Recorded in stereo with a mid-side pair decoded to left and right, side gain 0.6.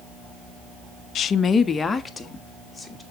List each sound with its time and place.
1.1 s a woman speaking: 50° left, 0.6 m; by 3.0 s 10° left, 2.5 m